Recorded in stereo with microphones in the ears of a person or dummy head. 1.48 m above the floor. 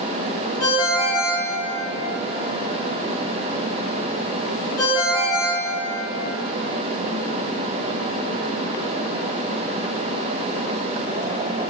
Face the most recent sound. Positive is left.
turn(degrees=25)  # may be behind; listen again after turning